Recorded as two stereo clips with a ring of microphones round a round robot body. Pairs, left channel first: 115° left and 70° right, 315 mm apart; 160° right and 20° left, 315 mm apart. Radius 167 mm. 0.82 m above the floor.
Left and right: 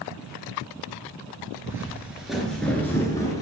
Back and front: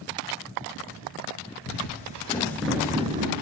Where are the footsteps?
145° right, 0.9 m; by 3.4 s 45° left, 0.8 m.